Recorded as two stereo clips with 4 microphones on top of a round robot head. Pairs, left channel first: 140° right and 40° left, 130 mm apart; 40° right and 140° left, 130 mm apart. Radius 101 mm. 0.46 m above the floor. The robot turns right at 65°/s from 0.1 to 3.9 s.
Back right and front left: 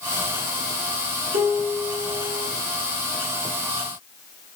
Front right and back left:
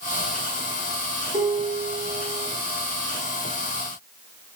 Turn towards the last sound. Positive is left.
turn(degrees=-105)